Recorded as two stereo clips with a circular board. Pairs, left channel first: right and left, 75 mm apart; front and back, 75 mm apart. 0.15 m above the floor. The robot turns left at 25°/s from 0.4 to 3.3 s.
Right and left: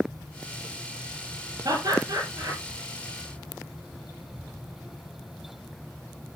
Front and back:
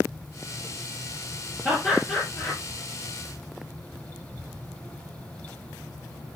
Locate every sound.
1.6 s laughter: 70° left, 3.5 m; by 2.6 s 50° left, 3.5 m